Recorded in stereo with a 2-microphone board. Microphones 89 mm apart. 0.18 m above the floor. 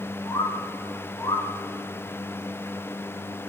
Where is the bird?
60° left (ahead or behind), 3 m.